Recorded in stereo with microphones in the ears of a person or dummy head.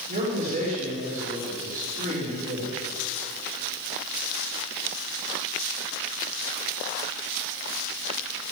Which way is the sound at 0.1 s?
40° right (ahead or behind).